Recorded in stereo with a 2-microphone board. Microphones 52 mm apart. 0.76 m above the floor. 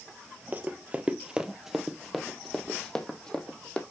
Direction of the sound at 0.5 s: 30° right (ahead or behind).